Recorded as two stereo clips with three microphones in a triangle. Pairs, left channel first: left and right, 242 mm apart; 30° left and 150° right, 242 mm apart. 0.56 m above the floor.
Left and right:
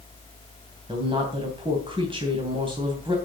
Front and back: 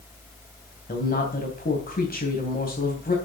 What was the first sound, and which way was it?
A woman speaking, 20° right.